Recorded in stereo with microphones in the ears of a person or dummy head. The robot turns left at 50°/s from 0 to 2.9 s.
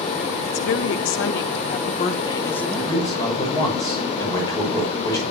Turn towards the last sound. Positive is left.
turn(degrees=25)  # may be behind; listen again after turning